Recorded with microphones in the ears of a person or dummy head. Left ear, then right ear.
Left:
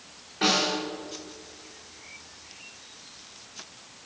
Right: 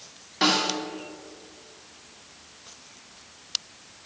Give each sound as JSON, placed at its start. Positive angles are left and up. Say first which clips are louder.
{"t": 0.4, "sound": "a snare drum", "louder": "right 1 dB", "side_deg": -55, "distance_m": 2.5}